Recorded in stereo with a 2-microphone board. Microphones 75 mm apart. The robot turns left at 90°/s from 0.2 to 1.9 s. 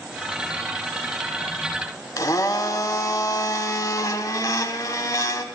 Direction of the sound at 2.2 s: 50° left (ahead or behind).